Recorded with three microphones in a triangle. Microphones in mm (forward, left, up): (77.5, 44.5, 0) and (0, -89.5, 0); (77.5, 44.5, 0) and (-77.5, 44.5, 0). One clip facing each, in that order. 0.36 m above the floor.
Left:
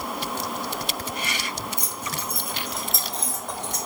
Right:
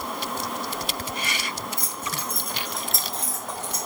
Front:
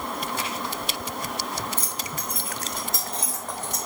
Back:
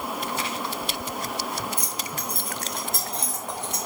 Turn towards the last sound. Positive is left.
turn(degrees=155)